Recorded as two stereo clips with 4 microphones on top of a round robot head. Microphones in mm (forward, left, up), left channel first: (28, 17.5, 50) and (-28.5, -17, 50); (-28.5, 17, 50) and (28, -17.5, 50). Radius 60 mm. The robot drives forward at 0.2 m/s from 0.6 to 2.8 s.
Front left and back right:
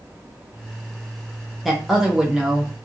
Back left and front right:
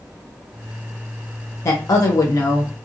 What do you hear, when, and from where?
1.6 s a woman speaking: 125° left, 0.6 m; by 2.7 s 140° left, 0.7 m